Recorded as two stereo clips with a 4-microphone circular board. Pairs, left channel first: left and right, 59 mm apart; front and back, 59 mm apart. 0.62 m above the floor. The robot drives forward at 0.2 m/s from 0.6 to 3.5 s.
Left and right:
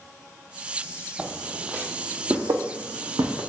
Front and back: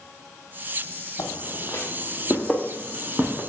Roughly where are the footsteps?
Ahead.